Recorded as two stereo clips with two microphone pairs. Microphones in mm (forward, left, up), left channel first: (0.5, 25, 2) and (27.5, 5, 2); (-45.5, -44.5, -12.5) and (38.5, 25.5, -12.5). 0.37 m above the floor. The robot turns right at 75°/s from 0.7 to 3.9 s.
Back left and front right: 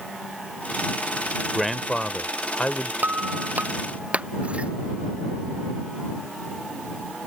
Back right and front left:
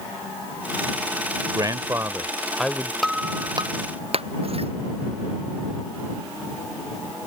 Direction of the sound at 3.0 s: 50° right.